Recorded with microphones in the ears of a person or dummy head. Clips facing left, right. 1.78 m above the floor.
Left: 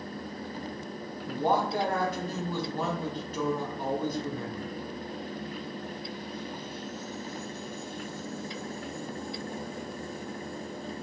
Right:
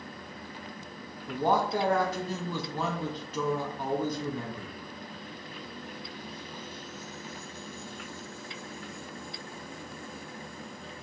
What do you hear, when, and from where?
1.3 s a man speaking: 60° right (ahead or behind), 1.0 m